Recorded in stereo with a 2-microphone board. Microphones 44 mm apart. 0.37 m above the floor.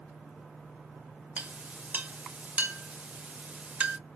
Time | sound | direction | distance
1.4 | a clink | 35° right (ahead or behind) | 0.5 m